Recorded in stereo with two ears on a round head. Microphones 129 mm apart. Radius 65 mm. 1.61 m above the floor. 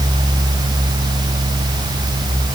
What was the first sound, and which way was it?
Only background noise.